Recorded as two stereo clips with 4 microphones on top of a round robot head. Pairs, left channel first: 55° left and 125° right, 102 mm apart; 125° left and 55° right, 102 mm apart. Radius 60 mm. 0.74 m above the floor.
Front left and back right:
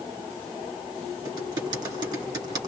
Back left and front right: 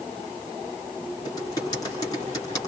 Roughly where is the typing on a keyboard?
Behind.